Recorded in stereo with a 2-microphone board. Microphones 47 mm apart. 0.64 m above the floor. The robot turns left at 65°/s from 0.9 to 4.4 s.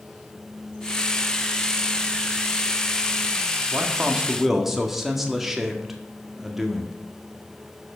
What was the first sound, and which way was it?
A man speaking, 130° right.